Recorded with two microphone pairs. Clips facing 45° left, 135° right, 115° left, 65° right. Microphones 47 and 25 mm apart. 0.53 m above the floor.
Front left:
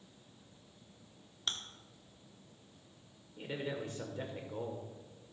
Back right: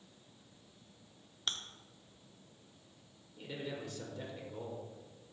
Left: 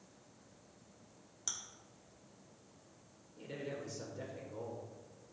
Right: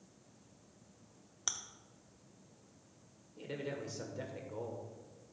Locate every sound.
1.5 s chewing: 45° right, 0.8 m
3.4 s a man speaking: 5° right, 1.6 m